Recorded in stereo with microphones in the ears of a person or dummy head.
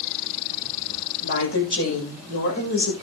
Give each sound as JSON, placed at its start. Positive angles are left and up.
{"t": 1.2, "sound": "a woman speaking", "side_deg": 80, "distance_m": 9.0}